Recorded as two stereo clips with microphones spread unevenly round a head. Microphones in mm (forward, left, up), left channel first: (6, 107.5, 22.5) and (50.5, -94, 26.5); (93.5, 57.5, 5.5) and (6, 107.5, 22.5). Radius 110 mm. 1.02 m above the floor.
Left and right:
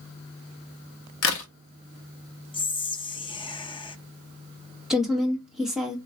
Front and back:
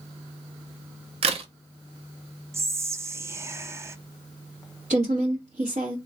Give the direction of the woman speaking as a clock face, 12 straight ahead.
6 o'clock.